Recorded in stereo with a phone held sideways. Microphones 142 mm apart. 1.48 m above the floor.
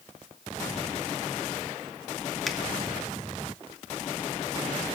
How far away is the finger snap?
About 1.9 m.